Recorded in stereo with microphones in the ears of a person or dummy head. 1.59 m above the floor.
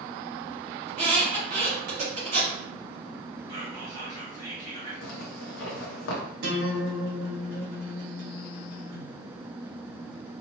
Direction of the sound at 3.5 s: 15° left (ahead or behind).